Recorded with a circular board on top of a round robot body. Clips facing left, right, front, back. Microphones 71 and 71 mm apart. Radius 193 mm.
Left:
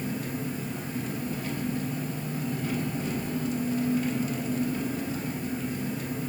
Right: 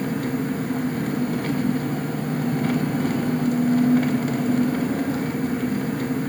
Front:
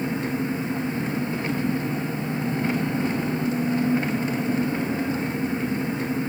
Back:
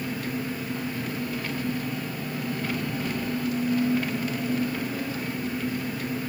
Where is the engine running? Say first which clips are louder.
Right 8 dB, front 5 dB; 65° right, 0.8 m.